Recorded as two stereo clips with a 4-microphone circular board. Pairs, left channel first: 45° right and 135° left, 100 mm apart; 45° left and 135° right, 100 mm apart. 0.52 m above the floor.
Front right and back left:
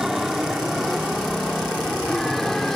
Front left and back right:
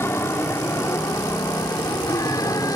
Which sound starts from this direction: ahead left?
An aircraft, at 0.0 s.